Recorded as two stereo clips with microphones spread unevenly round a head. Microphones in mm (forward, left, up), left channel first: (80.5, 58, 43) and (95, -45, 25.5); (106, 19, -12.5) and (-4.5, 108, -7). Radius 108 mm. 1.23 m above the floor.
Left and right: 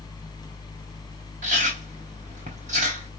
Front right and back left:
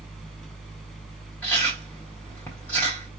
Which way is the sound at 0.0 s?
45° left.